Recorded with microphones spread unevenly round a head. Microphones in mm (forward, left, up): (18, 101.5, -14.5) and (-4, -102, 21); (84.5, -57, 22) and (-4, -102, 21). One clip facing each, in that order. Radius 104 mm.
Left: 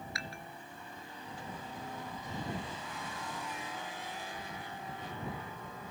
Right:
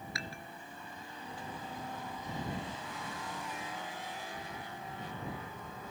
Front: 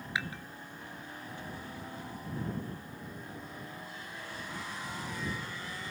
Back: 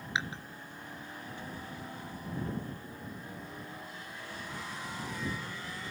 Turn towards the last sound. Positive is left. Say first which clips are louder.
# right 1 dB, back 1 dB
turn(degrees=-85)